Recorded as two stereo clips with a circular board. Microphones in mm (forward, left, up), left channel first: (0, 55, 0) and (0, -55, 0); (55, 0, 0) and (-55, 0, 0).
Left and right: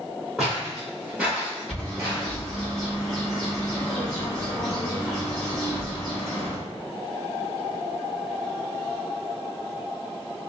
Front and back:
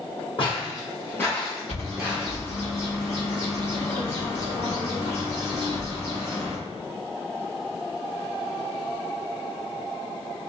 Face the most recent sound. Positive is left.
turn(degrees=5)